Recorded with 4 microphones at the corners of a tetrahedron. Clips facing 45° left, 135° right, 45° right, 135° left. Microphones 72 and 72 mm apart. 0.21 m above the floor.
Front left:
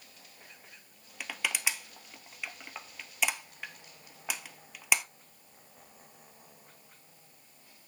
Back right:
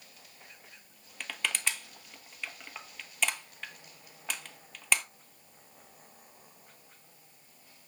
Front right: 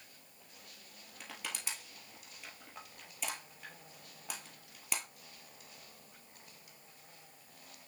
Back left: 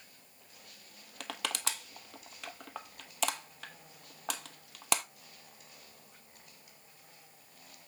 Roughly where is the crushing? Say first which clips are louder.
Even, back left 7 dB; behind left.